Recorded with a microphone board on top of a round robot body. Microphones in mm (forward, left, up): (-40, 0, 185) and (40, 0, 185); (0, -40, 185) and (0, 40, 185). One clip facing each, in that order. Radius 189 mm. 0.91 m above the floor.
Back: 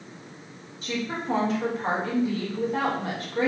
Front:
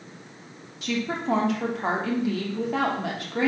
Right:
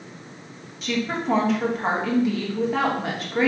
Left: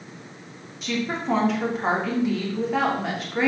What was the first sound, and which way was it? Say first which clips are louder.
A woman speaking: front 2 dB, right 1 dB; straight ahead.